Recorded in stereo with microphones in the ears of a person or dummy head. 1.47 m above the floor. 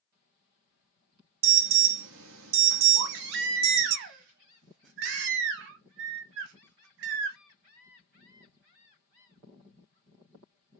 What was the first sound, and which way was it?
An alarm, 70° right (ahead or behind).